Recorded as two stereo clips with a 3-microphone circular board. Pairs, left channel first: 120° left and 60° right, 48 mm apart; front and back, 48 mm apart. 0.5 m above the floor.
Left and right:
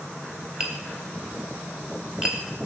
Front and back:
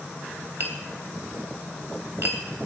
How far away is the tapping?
About 2.5 m.